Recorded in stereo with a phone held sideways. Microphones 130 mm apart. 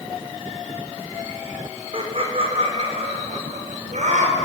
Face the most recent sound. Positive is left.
turn(degrees=-70)  # may be behind; listen again after turning